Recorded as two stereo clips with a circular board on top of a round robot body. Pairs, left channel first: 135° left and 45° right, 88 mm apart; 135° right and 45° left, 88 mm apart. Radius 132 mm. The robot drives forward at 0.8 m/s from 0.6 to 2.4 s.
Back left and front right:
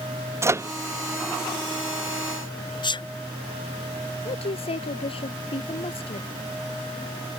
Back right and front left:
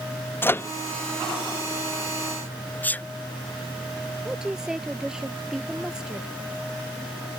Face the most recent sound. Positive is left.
turn(degrees=130)